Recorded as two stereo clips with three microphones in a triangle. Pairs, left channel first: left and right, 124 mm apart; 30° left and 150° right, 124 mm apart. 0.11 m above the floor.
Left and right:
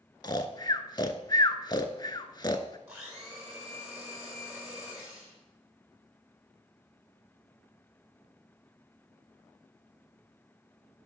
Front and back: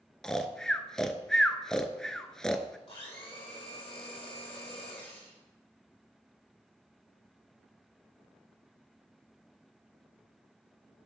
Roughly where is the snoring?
Left.